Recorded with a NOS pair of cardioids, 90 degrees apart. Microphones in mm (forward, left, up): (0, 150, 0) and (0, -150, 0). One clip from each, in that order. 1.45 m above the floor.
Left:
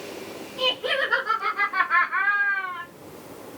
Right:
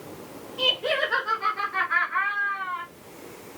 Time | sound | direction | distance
0.6 | laughter | 15° left | 2.5 m